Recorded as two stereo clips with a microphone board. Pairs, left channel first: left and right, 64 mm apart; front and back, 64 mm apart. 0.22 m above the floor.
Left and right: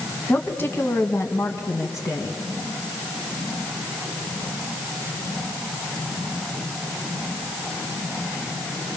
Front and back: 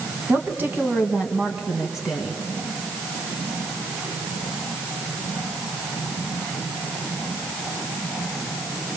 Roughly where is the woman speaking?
Behind left.